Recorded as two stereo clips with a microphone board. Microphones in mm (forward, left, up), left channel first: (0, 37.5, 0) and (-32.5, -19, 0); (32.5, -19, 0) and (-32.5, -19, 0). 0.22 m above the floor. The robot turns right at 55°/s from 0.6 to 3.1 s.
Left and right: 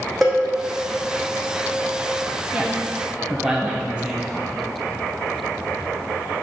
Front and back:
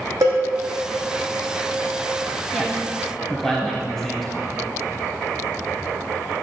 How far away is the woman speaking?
About 1.1 m.